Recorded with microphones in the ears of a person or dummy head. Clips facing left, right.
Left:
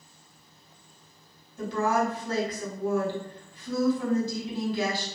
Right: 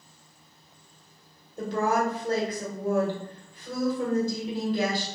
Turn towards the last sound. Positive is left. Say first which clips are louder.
# even
turn(degrees=-35)  # may be behind; listen again after turning